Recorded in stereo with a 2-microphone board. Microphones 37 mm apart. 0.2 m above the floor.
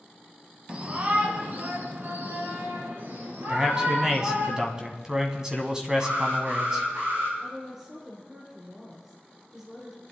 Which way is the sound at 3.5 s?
20° right (ahead or behind).